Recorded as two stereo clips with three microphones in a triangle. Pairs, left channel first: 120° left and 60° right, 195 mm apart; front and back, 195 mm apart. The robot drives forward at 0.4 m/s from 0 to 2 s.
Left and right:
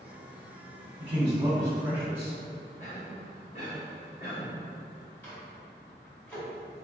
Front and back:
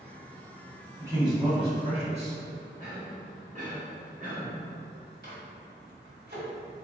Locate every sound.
1.0 s a man speaking: 110° right, 0.9 m; by 2.4 s 135° right, 1.1 m
2.8 s a cough: 155° left, 1.3 m
5.2 s a microwave: 160° right, 1.4 m